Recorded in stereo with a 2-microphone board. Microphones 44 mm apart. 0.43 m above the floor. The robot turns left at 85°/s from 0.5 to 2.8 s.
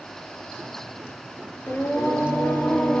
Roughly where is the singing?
Behind left.